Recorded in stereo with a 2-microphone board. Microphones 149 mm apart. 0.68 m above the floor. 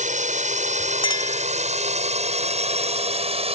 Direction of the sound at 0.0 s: 55° right (ahead or behind).